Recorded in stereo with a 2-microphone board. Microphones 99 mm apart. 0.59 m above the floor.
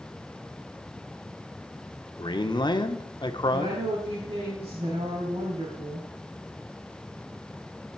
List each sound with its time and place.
2.2 s a man speaking: 50° left (ahead or behind), 1.2 m
3.5 s a woman speaking: 80° right, 5 m